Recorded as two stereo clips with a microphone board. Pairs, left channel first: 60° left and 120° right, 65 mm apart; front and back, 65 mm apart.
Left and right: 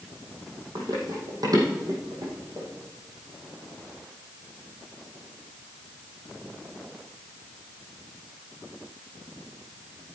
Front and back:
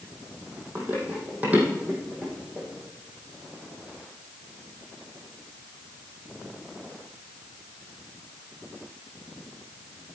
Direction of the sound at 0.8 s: 125° right.